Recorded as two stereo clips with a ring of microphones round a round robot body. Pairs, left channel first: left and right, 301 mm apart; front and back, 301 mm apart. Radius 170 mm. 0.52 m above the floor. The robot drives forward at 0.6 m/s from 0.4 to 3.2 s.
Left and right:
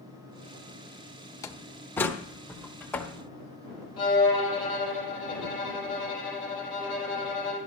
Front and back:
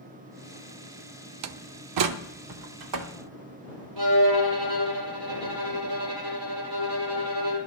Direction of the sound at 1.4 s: 165° left.